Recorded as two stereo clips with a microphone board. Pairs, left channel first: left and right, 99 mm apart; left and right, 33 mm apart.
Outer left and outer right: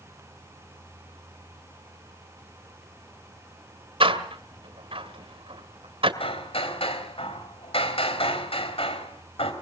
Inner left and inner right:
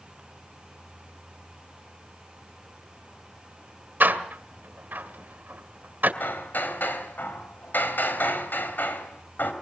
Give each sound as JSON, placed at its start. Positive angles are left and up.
{"t": 4.0, "sound": "a door slam", "side_deg": -65, "distance_m": 2.0}
{"t": 6.2, "sound": "hammering", "side_deg": 75, "distance_m": 3.0}